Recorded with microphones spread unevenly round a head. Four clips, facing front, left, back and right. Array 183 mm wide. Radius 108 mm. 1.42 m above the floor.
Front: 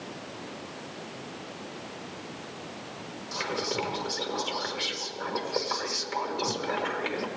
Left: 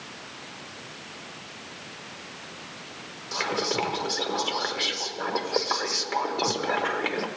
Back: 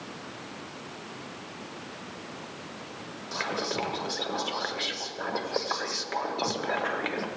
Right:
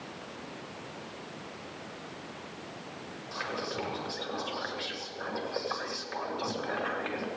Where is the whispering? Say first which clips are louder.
Left 8 dB, even; 120° left, 1.4 m.